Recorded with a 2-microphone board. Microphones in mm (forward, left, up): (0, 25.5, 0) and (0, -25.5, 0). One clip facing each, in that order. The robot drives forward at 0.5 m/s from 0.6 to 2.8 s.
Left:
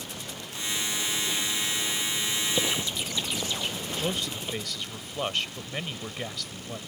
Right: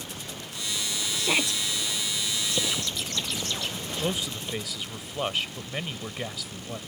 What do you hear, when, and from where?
1.1 s a shout: 80° right
2.5 s a bird: 10° left (ahead or behind)
4.0 s a man speaking: 5° right (ahead or behind)